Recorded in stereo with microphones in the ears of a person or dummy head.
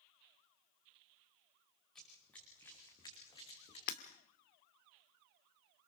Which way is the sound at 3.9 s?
50° left (ahead or behind).